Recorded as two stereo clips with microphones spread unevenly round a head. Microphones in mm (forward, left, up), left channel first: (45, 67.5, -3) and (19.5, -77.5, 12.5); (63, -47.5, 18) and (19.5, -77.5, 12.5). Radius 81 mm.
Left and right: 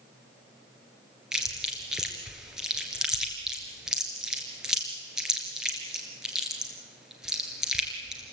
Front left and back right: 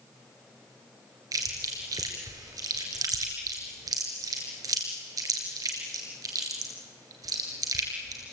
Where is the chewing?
175° left, 3 m.